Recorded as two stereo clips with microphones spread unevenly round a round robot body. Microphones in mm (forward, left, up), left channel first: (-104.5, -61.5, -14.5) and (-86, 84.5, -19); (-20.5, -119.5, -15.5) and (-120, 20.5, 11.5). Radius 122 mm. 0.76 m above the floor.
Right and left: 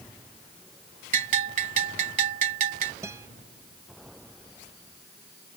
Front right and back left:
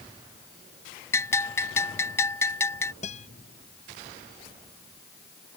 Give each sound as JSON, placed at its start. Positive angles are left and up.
{"t": 1.1, "sound": "a bell", "azimuth_deg": 25}
{"t": 3.0, "sound": "a guitar", "azimuth_deg": 5}